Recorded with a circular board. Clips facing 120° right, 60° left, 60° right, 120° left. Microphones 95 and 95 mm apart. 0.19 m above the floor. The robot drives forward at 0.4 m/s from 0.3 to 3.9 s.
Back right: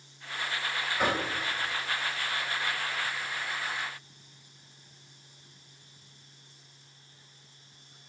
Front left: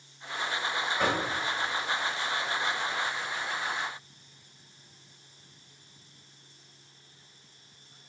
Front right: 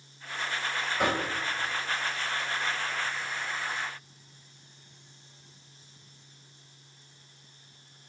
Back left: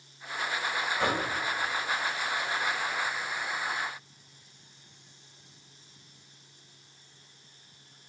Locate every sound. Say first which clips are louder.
1.0 s knocking: even, front right 2 dB; 45° right, 1.5 m